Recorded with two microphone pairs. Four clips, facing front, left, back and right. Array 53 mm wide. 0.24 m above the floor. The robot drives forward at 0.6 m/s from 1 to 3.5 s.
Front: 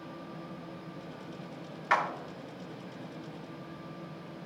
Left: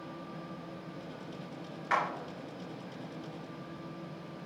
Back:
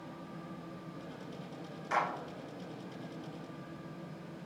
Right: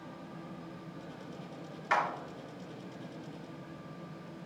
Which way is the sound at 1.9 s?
Straight ahead.